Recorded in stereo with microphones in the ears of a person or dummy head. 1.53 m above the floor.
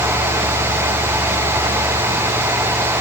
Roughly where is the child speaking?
No child speaking in this recording.